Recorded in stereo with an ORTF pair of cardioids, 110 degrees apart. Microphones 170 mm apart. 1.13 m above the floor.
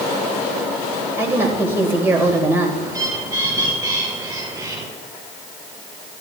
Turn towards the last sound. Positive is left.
turn(degrees=-20)